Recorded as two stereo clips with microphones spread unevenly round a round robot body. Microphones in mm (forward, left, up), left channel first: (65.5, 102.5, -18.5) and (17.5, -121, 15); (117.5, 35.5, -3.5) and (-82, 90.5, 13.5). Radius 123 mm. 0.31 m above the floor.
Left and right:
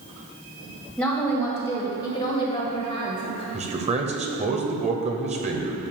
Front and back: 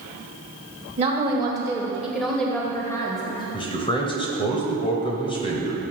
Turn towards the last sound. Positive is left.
turn(degrees=-50)